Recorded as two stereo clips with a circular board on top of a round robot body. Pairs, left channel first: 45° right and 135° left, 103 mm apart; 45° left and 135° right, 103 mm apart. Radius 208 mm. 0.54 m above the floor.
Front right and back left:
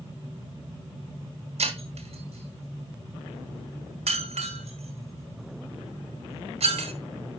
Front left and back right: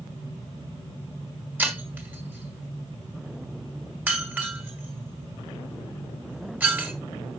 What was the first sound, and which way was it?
Breaking glass, 150° left.